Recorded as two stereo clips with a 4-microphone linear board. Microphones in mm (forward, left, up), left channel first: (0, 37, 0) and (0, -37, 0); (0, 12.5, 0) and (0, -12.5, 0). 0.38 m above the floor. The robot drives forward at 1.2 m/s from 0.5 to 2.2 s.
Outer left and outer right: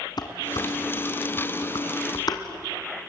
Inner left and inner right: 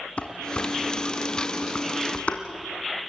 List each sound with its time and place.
0.2 s dishes clattering: 60° left (ahead or behind), 2 m; by 2.4 s 55° left (ahead or behind), 2 m